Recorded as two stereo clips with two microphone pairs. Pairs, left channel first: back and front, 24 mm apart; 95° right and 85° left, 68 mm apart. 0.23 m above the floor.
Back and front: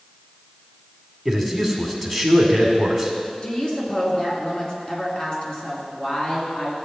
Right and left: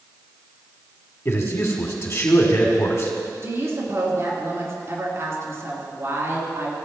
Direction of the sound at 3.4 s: 125° left.